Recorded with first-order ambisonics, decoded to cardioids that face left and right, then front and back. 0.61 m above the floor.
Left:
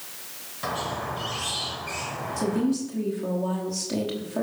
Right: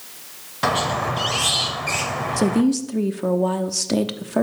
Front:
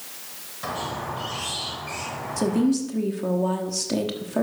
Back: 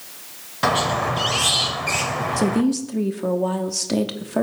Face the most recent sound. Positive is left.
turn(degrees=-110)